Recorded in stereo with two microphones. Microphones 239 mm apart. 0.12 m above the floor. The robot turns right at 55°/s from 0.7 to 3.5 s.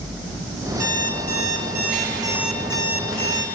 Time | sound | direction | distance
0.8 | an alarm clock | 95° right | 2.5 m